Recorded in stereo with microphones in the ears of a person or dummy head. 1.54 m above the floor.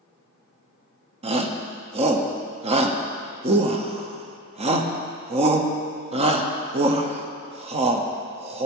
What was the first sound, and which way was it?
A shout, 30° right (ahead or behind).